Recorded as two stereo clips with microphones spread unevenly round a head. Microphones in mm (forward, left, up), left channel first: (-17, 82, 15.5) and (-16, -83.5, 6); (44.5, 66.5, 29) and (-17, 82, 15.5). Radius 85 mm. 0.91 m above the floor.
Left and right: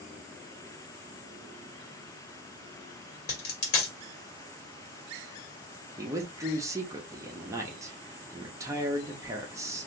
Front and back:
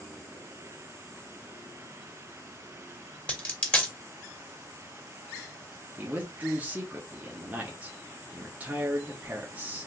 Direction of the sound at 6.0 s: 150° right.